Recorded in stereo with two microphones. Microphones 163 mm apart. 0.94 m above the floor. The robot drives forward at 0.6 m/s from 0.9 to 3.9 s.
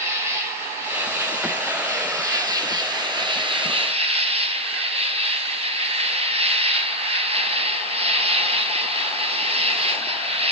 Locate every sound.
0.0 s an insect: 15° right (ahead or behind), 3 m; by 10.5 s 35° right (ahead or behind), 1.2 m